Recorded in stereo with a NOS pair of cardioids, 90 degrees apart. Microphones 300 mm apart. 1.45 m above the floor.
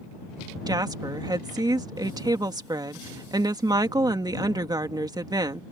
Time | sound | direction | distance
0.7 | a woman speaking | 15° right | ?